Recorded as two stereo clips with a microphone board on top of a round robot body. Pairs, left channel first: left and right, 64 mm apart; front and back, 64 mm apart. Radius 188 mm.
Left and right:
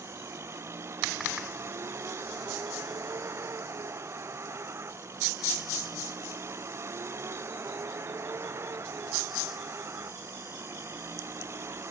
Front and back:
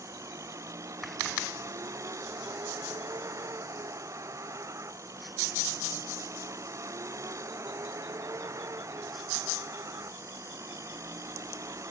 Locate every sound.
0.0 s a vehicle: 140° right